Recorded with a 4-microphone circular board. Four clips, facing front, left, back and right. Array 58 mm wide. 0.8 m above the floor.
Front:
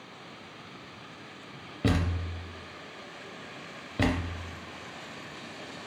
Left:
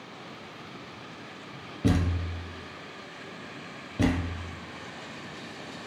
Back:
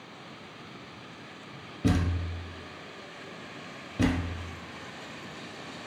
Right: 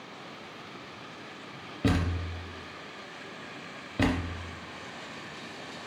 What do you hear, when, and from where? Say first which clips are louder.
1.8 s a thud: left 1 dB, back 1 dB; 45° right, 0.7 m